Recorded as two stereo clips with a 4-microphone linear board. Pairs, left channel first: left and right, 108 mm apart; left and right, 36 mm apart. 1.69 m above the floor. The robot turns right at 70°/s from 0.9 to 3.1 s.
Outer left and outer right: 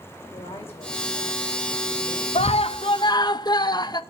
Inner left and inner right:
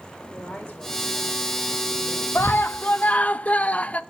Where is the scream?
85° left, 0.5 m; by 4.0 s 135° left, 0.5 m.